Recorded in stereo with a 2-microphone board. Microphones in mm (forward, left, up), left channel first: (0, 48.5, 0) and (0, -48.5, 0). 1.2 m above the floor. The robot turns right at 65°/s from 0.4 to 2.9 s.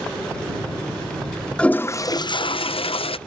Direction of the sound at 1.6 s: 10° left.